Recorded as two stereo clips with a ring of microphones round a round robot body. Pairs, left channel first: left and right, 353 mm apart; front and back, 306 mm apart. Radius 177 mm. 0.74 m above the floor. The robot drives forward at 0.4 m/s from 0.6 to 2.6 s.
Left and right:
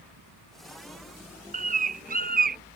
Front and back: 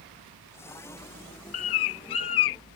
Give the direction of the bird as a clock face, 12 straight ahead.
1 o'clock.